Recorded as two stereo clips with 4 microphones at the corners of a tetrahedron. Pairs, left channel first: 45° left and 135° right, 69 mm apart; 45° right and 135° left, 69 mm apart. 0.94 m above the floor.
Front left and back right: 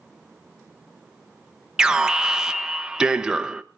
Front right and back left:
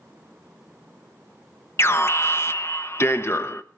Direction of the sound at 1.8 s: 60° right.